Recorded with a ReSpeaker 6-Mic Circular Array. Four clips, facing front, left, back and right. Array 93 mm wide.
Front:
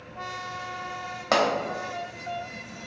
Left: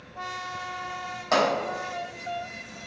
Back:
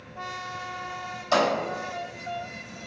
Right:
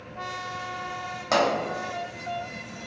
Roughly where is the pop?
Ahead.